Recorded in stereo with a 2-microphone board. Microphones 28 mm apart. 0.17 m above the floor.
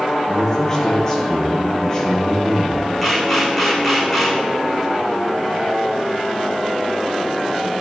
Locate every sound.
0.3 s a man speaking: 20° left (ahead or behind), 4 m
3.0 s a camera shutter: 10° left (ahead or behind), 5.5 m